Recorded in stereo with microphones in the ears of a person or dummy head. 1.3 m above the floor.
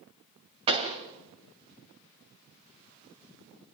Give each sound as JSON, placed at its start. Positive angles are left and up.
{"t": 0.7, "sound": "a pop", "side_deg": -30, "distance_m": 2.0}